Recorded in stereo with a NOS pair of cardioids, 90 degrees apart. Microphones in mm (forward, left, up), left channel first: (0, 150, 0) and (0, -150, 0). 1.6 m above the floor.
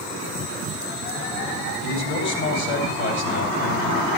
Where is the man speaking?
45° left, 7 m.